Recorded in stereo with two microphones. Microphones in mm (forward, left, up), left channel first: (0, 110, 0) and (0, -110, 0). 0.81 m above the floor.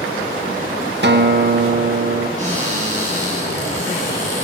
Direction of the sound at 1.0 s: 50° right (ahead or behind).